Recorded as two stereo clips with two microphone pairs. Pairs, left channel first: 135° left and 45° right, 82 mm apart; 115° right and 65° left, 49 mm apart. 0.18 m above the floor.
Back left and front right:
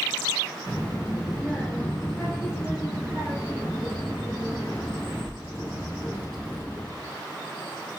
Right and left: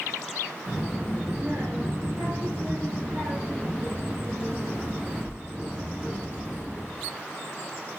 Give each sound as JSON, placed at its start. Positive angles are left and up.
{"t": 0.7, "sound": "a child speaking", "azimuth_deg": 70, "distance_m": 1.7}